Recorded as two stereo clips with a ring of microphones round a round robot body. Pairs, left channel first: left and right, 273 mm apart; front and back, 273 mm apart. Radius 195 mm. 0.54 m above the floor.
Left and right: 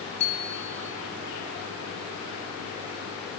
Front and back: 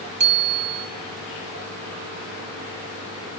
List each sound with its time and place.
0.2 s a bicycle bell: 160° left, 2.5 m